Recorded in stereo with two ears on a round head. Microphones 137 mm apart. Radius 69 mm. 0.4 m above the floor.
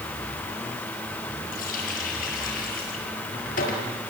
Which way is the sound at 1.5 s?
60° left (ahead or behind).